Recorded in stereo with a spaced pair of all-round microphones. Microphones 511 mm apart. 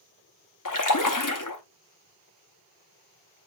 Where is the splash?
40° left (ahead or behind), 0.8 m.